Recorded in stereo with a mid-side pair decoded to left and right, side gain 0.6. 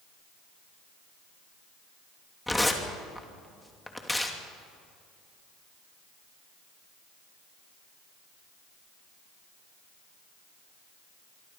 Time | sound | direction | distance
2.5 | tearing paper | 5° left | 3 m